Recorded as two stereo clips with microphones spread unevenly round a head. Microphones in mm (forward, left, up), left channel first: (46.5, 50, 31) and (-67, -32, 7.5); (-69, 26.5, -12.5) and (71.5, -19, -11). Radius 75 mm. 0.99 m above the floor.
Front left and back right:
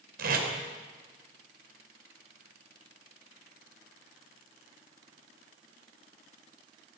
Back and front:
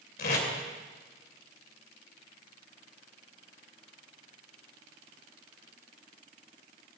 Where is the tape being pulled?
165° right, 3 m.